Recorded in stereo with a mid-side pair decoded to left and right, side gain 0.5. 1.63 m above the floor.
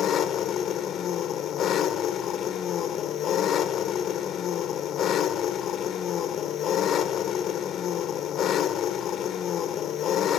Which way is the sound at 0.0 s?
60° left.